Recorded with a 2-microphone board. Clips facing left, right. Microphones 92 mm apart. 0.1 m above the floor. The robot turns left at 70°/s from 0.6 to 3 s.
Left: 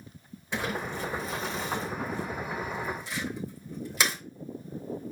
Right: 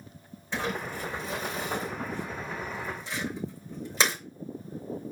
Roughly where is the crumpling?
Centre.